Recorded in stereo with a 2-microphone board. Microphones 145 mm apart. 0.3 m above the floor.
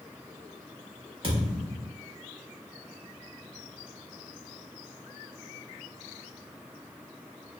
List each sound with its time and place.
1.2 s a thud: 35° right (ahead or behind), 1.0 m